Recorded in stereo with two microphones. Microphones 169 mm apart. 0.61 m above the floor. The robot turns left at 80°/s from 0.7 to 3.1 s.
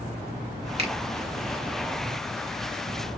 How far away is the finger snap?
About 1.8 m.